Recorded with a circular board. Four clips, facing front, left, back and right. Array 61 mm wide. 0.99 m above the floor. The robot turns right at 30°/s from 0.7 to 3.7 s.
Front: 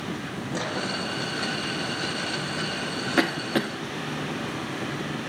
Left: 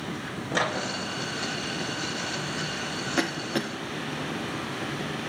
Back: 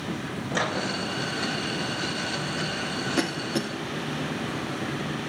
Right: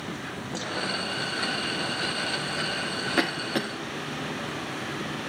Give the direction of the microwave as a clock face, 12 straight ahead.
8 o'clock.